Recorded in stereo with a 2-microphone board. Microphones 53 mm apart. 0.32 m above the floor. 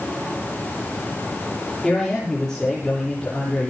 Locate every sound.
1.8 s a man speaking: 10° left (ahead or behind), 9.5 m